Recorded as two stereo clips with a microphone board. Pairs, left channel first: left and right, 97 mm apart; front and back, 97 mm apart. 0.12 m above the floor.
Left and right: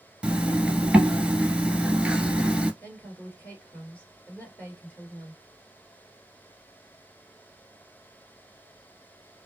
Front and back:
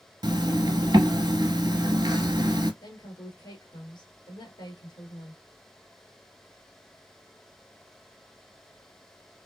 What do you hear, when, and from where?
0.2 s a zipper: 165° right, 0.8 m
2.8 s a woman speaking: 20° left, 1.6 m